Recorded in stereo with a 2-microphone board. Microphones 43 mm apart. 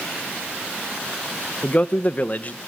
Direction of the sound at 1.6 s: 35° left (ahead or behind).